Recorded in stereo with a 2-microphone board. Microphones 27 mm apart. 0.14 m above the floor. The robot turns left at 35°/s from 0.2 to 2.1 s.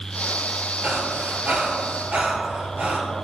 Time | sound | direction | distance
0.8 | breathing | 55° right (ahead or behind) | 1.5 m